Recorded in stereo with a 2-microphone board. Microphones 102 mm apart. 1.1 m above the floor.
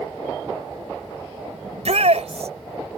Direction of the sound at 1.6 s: 80° right.